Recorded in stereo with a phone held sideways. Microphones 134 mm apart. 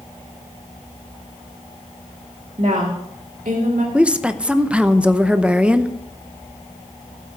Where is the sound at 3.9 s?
10° right (ahead or behind), 0.7 m.